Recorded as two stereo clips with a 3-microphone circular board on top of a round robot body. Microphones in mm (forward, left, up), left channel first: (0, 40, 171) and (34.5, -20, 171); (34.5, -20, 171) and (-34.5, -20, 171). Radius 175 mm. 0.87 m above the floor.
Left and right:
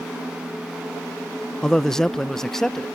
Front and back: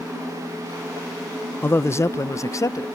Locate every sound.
1.6 s a man speaking: 40° left; by 2.9 s 35° left